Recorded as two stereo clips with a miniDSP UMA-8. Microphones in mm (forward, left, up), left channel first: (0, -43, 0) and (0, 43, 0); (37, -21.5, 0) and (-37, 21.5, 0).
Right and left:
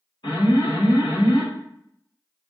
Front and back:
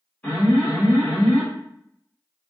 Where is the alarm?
95° right, 1.8 m.